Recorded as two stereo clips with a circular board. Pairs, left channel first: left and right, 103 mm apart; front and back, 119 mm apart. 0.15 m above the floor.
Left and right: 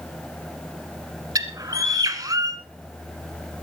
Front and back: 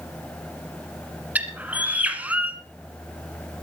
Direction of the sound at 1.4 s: 110° right.